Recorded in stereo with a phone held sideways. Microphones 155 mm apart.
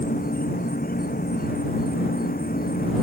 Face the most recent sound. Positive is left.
turn(degrees=65)  # may be behind; listen again after turning